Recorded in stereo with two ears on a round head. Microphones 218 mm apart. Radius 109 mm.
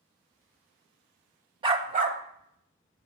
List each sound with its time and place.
1.6 s a dog barking: 20° right (ahead or behind), 0.9 m; by 3.1 s 50° right (ahead or behind), 1.7 m